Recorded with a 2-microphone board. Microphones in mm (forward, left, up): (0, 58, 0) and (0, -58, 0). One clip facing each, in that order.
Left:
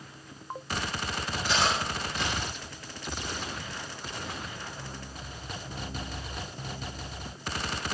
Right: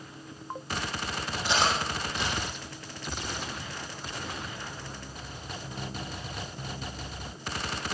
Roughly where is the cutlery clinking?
Right.